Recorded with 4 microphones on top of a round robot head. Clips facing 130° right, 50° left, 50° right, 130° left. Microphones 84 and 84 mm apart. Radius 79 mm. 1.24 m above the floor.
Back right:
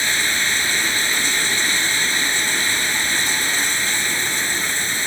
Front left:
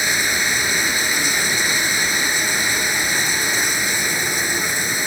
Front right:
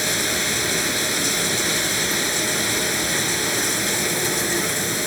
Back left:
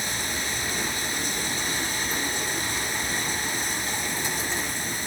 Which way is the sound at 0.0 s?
30° right.